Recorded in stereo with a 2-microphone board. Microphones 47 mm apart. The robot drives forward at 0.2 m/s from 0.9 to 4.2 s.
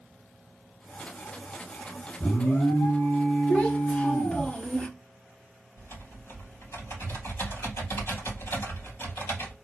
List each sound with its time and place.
2.2 s an alarm: 85° left, 2.5 m; by 4.5 s 75° left (ahead or behind), 3 m
3.5 s a child speaking: 30° left (ahead or behind), 0.8 m; by 4.9 s 25° left (ahead or behind), 0.8 m
5.8 s typing on a keyboard: 65° left (ahead or behind), 3 m